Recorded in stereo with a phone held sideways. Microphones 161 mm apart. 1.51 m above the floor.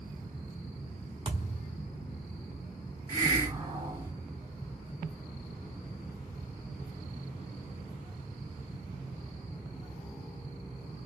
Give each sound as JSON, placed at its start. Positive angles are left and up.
{"t": 1.2, "sound": "a thud", "side_deg": -35, "distance_m": 1.3}
{"t": 3.1, "sound": "a hiss", "side_deg": -25, "distance_m": 1.0}